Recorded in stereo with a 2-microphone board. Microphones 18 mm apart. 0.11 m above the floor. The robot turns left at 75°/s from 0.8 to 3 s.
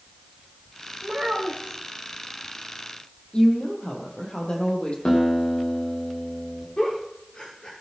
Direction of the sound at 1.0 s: 70° right.